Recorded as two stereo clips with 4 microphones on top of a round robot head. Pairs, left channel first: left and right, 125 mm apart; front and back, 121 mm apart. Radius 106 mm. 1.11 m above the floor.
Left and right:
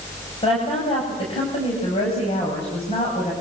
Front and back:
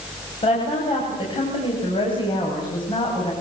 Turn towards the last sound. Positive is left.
turn(degrees=50)